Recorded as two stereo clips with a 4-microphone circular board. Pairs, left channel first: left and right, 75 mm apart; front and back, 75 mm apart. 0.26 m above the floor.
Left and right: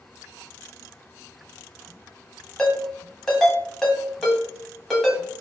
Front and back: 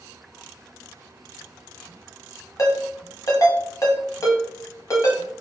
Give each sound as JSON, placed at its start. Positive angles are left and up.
{"t": 2.6, "sound": "a ringtone", "azimuth_deg": 5, "distance_m": 1.1}